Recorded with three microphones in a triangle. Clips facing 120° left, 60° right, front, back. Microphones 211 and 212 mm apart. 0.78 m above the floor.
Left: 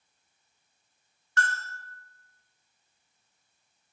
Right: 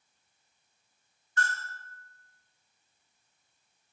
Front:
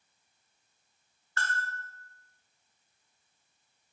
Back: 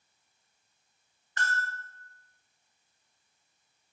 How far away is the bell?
About 0.5 m.